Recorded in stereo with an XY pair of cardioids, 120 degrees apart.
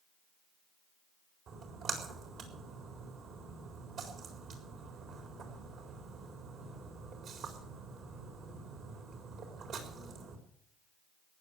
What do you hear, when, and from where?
1.5 s a splash: 55° right, 4 m